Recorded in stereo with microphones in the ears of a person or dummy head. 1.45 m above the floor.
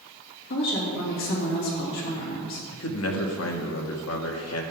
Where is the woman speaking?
70° left (ahead or behind), 3 m.